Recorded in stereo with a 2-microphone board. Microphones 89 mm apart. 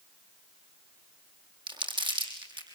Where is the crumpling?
60° right (ahead or behind), 6.5 m.